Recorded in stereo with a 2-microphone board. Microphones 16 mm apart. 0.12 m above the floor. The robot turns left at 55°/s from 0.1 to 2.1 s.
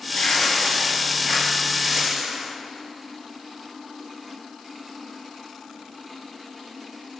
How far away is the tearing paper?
About 2.5 m.